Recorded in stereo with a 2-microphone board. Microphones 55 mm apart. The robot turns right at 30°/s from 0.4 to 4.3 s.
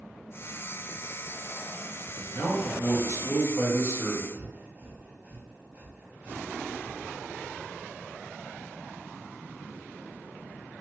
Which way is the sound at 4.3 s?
25° right (ahead or behind).